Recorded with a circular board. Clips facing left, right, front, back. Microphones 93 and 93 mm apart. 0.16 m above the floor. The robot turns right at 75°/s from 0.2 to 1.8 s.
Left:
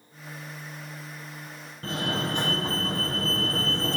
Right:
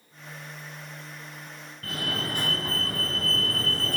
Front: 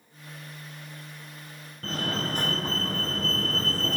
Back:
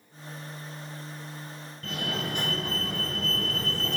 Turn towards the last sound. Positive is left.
turn(degrees=35)